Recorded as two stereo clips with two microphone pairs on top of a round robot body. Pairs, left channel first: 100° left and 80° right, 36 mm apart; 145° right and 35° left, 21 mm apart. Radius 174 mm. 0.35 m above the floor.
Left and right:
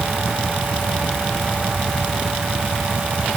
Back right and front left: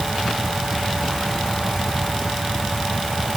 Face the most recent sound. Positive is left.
No sound to turn to.